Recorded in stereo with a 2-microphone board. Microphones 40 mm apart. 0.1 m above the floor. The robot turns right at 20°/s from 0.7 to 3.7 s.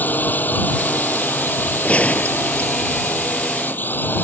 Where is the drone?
55° left; by 4.2 s 115° left.